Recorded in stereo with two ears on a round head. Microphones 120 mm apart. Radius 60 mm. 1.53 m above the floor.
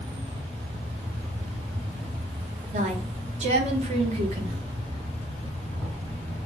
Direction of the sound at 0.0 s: 50° right (ahead or behind).